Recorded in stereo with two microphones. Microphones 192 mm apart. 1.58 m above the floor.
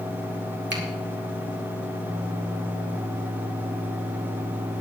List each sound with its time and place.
0.7 s a finger snap: 65° right (ahead or behind), 3 m